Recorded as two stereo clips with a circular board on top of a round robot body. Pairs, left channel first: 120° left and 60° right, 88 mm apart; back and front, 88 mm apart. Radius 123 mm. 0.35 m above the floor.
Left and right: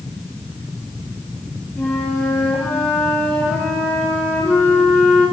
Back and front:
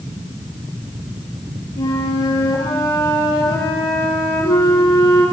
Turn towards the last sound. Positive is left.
turn(degrees=-170)